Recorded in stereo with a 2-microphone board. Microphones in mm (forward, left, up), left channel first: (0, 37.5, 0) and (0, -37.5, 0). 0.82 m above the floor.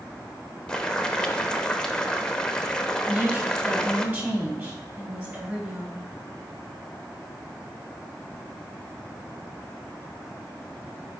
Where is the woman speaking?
30° right (ahead or behind), 4 m.